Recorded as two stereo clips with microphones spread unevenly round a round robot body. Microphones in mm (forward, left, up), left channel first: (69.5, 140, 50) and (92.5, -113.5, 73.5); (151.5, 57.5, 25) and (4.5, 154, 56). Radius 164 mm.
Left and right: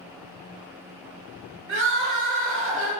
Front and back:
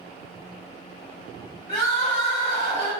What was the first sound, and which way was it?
Crying, 70° right.